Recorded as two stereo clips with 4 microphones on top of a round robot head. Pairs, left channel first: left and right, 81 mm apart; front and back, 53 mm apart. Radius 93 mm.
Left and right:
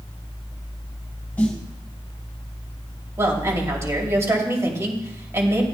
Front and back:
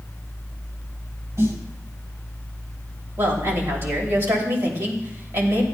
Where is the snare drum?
165° left, 2.5 m.